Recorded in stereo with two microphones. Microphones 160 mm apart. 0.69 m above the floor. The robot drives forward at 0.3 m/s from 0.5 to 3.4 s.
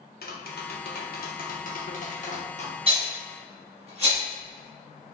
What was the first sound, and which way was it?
Tapping, 75° left (ahead or behind).